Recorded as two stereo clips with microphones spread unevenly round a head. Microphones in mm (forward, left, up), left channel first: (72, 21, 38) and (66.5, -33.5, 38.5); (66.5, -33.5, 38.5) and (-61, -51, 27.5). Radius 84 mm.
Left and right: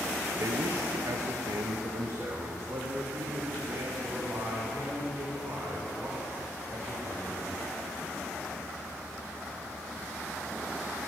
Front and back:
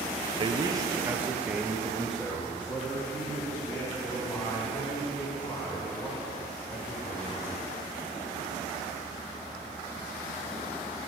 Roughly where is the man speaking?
Behind right.